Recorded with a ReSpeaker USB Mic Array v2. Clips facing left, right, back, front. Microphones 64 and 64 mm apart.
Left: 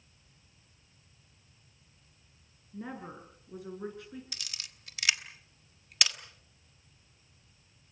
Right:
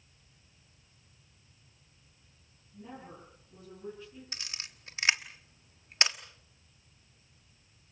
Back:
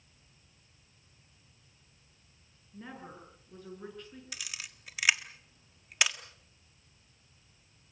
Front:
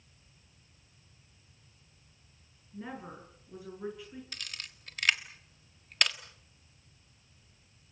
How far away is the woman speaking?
About 7.5 m.